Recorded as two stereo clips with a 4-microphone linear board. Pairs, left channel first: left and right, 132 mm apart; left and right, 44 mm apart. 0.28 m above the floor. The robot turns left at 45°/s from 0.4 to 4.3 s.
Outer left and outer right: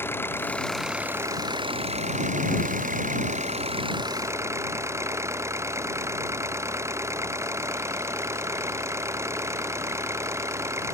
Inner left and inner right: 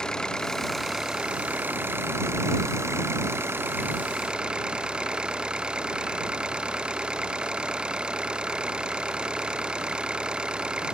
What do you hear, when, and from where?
0.0 s an engine running: 15° left; by 10.9 s 160° right